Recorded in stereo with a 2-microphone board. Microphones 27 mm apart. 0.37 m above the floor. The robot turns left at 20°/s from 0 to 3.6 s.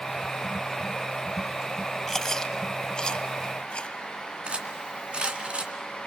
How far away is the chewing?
About 1.0 m.